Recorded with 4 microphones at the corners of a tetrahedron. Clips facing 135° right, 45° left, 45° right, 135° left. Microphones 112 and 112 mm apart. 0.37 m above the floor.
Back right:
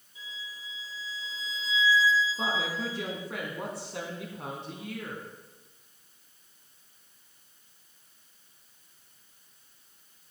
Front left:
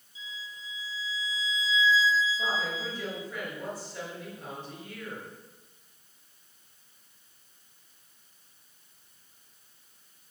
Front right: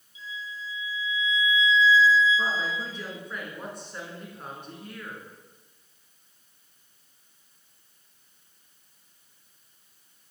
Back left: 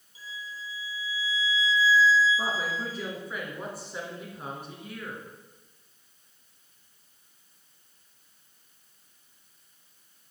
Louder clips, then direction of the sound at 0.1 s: Front left 1 dB, front right 3 dB; 170° right.